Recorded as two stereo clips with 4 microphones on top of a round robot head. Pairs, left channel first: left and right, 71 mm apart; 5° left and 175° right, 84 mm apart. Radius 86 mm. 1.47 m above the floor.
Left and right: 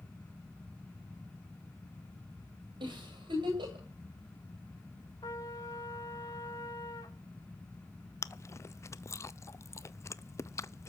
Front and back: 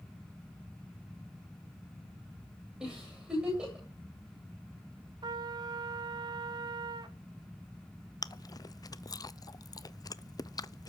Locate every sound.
2.8 s a giggle: 95° right, 9 m
5.2 s a trumpet: 145° left, 1.1 m
8.2 s chewing: 45° left, 0.7 m